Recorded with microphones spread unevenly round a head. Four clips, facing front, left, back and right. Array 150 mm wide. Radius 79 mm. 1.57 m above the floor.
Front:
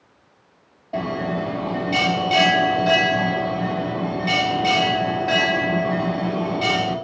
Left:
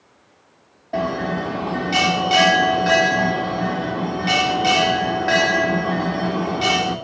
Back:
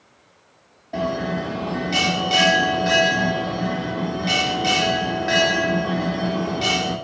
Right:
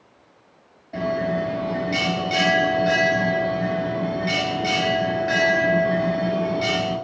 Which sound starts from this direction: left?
A bell, at 0.9 s.